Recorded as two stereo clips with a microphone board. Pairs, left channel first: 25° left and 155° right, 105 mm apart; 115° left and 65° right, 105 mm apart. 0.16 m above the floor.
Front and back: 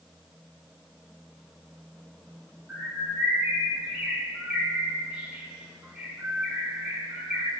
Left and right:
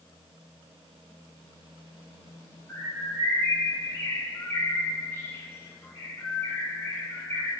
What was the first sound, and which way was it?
A bird, 145° left.